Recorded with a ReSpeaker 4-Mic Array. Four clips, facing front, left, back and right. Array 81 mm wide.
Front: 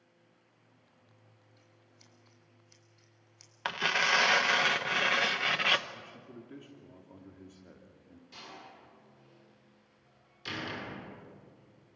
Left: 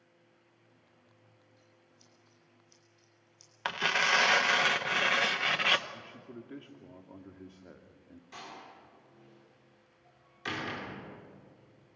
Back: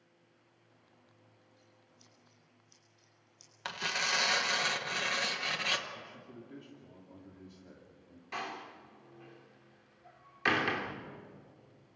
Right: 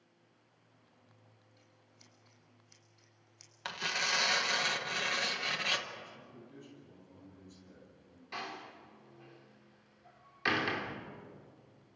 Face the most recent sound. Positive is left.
turn(degrees=-160)